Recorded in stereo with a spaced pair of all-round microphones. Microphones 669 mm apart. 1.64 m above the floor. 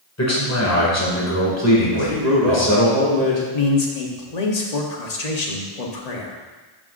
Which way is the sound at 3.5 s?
70° left (ahead or behind).